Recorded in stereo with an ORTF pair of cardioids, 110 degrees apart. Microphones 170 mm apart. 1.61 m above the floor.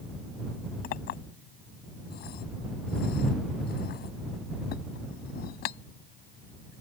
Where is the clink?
70° left.